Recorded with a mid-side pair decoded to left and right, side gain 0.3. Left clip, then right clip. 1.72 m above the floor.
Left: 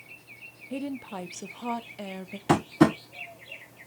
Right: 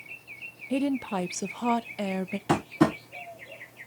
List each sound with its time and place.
0.7 s a woman speaking: 65° right, 0.6 m
2.5 s tapping: 30° left, 1.7 m